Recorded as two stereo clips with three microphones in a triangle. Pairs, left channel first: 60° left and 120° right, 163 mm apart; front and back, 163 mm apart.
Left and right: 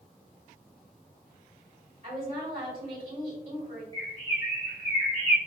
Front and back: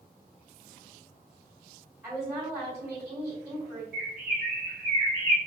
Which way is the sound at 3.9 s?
110° right.